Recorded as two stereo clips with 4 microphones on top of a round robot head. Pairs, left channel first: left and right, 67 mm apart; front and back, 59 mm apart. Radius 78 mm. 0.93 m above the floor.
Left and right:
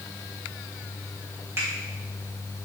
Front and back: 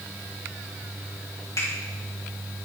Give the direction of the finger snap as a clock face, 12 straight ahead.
1 o'clock.